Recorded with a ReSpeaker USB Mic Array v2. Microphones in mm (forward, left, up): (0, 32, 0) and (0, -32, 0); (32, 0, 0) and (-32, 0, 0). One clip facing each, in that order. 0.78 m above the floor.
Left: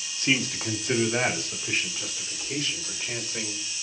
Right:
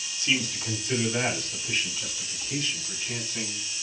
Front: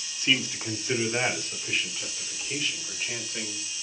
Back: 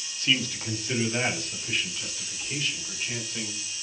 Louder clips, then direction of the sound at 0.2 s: Left 2 dB, front 1 dB; 65° left.